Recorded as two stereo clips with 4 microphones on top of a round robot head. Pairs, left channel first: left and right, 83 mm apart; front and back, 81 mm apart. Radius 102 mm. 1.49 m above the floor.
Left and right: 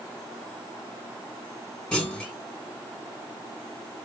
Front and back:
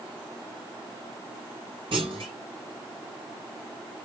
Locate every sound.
1.9 s a clunk: 170° left, 3 m